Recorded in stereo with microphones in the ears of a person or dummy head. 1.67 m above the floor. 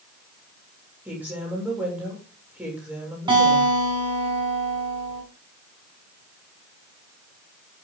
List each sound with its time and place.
1.1 s a woman speaking: centre (ahead or behind), 7 m
3.3 s a guitar: 15° right (ahead or behind), 6 m